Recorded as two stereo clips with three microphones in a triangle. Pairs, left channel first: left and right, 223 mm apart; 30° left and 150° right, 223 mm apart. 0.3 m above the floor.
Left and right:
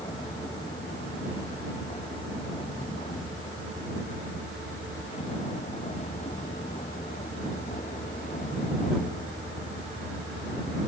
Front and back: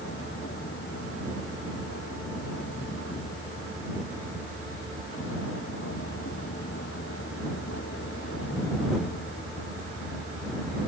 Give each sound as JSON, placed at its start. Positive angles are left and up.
{"t": 0.0, "sound": "a vehicle", "azimuth_deg": 20}